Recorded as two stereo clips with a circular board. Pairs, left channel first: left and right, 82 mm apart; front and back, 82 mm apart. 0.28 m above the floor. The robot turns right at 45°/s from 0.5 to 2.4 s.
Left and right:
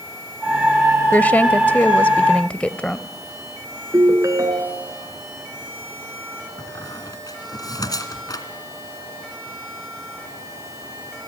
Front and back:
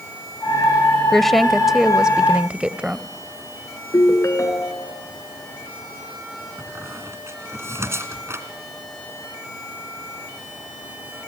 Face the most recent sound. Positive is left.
turn(degrees=125)